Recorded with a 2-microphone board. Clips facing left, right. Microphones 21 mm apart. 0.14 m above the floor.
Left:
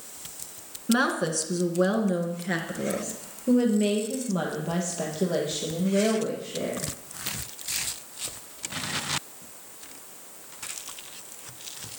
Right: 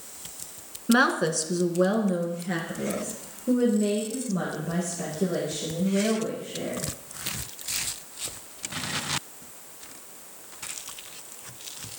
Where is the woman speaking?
20° right (ahead or behind), 1.2 m; by 6.8 s 45° left (ahead or behind), 4.5 m.